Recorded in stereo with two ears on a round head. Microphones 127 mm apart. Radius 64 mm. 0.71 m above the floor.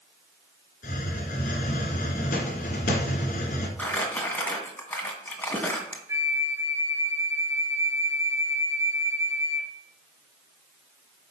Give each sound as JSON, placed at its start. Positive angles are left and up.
{"t": 0.8, "sound": "a hiss", "side_deg": 65, "distance_m": 2.5}
{"t": 3.8, "sound": "crumpling", "side_deg": 10, "distance_m": 2.0}
{"t": 6.1, "sound": "a flute", "side_deg": -20, "distance_m": 1.1}